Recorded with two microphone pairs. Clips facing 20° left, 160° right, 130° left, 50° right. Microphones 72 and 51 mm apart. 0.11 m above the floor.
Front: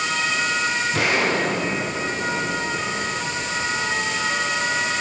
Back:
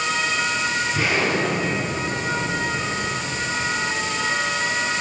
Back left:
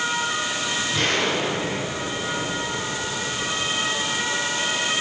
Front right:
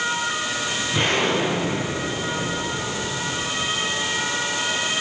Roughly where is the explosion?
Ahead.